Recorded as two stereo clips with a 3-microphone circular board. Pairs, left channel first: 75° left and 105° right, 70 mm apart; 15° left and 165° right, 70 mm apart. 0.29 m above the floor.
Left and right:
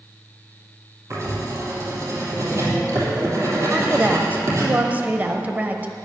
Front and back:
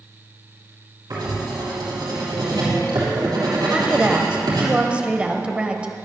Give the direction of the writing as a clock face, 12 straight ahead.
5 o'clock.